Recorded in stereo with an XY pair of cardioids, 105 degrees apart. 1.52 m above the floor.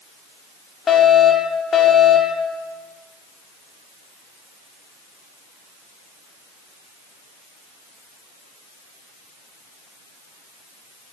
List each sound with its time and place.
0.9 s a fire alarm: 45° left, 7.5 m